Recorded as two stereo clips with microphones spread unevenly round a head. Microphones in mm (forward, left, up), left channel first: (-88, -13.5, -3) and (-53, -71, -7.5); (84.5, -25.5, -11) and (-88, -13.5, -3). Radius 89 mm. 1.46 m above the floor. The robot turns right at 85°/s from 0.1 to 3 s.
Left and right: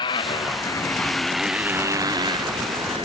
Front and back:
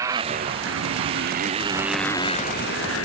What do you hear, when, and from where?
0.0 s a motorcycle: 100° left; by 3.0 s straight ahead